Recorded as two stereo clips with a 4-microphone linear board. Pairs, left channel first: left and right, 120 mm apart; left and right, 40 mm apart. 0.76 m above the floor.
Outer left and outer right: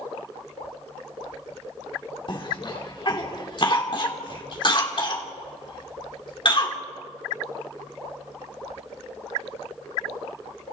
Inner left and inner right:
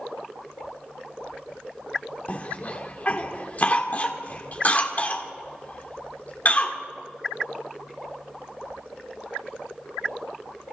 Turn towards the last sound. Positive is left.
turn(degrees=45)  # may be behind; listen again after turning